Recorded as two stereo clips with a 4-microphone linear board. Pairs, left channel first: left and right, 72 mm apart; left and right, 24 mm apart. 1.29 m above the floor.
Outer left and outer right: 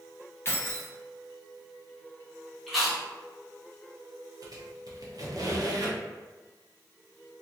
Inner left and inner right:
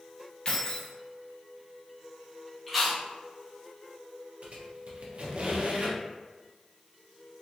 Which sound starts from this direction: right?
A squeak, at 4.4 s.